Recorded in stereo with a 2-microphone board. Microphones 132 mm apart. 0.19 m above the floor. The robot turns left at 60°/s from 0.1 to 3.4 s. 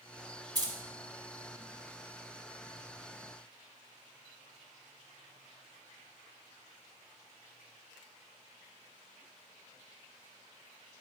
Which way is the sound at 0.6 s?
30° right (ahead or behind).